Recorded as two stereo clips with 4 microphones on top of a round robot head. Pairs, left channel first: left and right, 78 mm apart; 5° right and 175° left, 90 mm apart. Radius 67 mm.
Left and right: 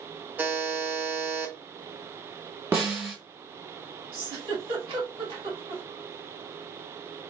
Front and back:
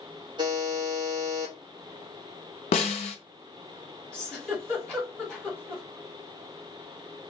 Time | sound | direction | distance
0.4 | a buzzer | 155° right | 1.1 m
2.7 | a snare drum | 15° right | 0.7 m
4.1 | a giggle | 90° right | 1.9 m